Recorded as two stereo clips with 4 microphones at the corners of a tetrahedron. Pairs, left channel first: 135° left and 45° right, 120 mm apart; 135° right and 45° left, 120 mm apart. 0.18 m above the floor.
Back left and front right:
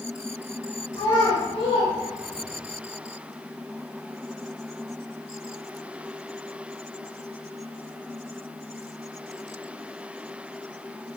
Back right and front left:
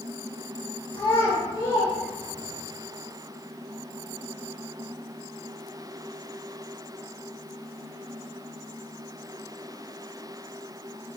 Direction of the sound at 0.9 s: 175° right.